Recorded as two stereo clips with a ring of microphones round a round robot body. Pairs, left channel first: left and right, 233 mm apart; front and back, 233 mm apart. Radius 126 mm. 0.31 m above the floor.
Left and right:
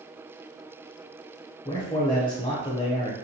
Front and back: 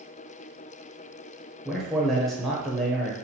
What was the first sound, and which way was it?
A man speaking, 90° left.